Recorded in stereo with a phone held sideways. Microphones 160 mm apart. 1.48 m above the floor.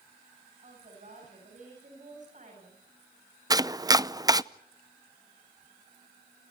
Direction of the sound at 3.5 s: 25° right (ahead or behind).